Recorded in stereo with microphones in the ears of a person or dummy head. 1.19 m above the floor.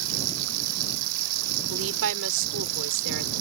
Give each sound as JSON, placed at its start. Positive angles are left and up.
{"t": 0.0, "sound": "running water", "side_deg": -85}
{"t": 1.7, "sound": "a woman speaking", "side_deg": -70}